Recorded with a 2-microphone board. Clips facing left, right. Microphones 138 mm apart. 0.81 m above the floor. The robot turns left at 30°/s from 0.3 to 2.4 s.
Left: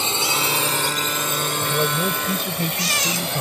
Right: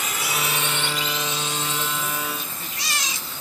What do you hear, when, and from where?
0.0 s a drone: 30° left (ahead or behind); by 3.4 s 75° left (ahead or behind)
1.6 s a man speaking: 45° left (ahead or behind); by 3.4 s 70° left (ahead or behind)